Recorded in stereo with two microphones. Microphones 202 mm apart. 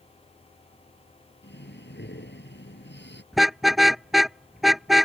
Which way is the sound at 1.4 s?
60° left (ahead or behind).